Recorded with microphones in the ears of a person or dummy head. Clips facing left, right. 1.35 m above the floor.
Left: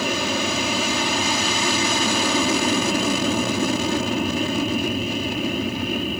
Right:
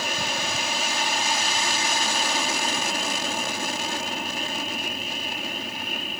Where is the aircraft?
60° left (ahead or behind).